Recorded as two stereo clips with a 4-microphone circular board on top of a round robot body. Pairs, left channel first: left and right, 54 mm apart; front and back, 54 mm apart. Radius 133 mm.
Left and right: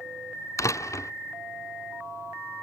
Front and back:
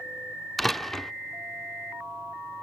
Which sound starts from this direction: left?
A door slam, at 0.6 s.